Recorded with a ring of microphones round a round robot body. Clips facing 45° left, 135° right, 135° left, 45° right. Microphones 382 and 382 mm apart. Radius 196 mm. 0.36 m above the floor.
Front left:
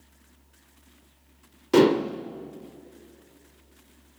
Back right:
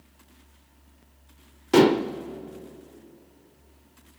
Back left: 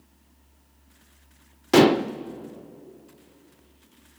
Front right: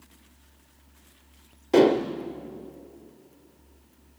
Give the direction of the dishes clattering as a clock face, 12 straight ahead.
7 o'clock.